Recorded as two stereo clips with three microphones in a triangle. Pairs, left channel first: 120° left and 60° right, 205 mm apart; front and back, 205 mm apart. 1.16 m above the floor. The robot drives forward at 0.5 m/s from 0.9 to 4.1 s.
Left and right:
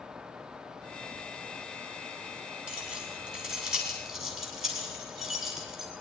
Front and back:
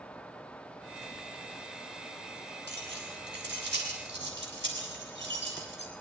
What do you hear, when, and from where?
2.7 s keys jangling: 145° right, 7.5 m; by 5.9 s 150° right, 8 m